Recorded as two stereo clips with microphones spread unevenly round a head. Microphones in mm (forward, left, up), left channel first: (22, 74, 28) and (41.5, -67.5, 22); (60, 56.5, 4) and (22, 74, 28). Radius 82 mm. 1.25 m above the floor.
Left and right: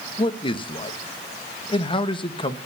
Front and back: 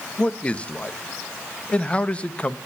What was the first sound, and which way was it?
A man speaking, 40° left.